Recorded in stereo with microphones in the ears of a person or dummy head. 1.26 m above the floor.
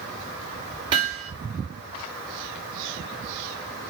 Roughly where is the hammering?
Right.